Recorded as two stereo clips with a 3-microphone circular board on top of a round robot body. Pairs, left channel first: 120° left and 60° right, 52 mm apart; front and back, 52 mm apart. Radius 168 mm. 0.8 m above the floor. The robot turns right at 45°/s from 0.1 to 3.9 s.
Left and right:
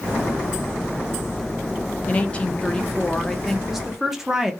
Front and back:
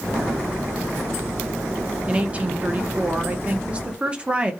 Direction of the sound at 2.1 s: 145° left.